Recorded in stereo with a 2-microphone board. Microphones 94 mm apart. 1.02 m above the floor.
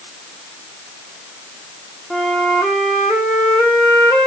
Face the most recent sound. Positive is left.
turn(degrees=10)  # may be behind; listen again after turning